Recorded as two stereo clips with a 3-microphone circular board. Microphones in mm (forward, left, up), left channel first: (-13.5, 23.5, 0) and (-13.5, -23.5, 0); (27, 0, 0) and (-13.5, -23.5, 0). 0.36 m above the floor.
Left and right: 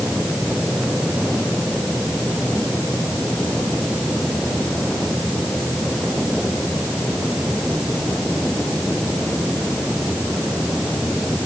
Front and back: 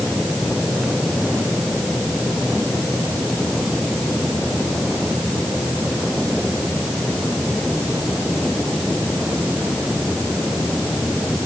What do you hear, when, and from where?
Only background noise.